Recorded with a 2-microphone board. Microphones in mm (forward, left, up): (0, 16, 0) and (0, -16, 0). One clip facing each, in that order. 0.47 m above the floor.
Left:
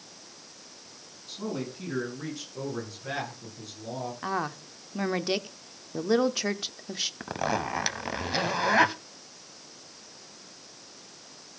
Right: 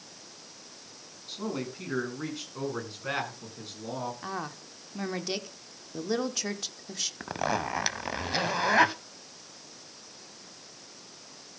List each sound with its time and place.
1.3 s a man speaking: 20° right (ahead or behind), 5.5 m; by 4.1 s 45° right (ahead or behind), 5.5 m
4.2 s a woman speaking: 20° left (ahead or behind), 0.7 m
7.2 s a zipper: centre (ahead or behind), 0.5 m